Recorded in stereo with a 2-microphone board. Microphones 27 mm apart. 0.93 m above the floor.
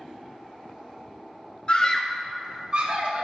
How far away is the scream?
About 0.6 m.